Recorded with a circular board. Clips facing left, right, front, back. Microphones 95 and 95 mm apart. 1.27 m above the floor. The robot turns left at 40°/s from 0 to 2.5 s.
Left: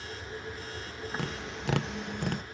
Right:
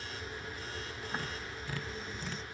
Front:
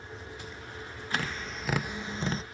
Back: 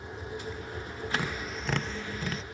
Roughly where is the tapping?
Left.